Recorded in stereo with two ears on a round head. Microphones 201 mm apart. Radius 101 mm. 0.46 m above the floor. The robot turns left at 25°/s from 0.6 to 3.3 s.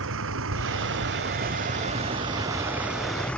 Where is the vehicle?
120° right; by 3.4 s 175° left.